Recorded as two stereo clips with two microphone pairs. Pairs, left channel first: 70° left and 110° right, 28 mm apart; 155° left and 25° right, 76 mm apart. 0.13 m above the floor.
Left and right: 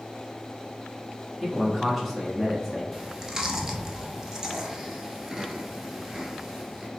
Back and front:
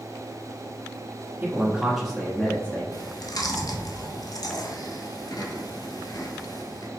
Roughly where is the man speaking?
Ahead.